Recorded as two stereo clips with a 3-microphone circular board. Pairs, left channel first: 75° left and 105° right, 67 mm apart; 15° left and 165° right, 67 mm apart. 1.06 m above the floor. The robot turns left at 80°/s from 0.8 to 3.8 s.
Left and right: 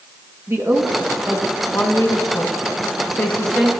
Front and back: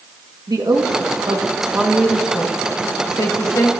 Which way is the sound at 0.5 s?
155° right.